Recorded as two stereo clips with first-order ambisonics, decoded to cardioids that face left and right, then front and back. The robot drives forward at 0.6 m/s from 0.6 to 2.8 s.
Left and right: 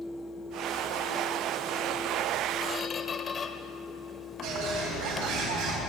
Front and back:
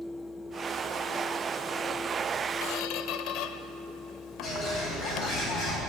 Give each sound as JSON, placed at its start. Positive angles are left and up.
{"t": 2.6, "sound": "a squeak", "azimuth_deg": 20, "distance_m": 0.7}
{"t": 4.4, "sound": "a bird", "azimuth_deg": -55, "distance_m": 3.5}